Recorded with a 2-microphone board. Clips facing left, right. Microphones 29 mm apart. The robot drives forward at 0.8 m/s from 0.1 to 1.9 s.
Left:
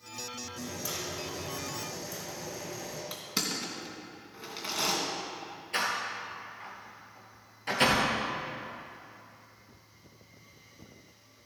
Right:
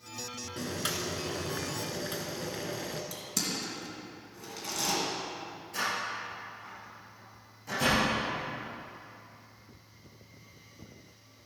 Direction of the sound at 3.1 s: 35° left (ahead or behind).